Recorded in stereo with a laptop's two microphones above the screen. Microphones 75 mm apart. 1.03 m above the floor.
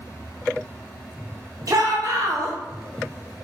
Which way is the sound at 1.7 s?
50° right (ahead or behind).